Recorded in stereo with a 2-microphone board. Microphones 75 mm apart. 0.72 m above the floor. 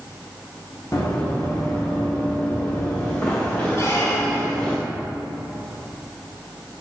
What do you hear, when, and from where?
0.9 s running footsteps: 40° left (ahead or behind), 2.5 m; by 4.8 s 15° left (ahead or behind), 4 m
3.8 s a squeak: 40° left (ahead or behind), 2 m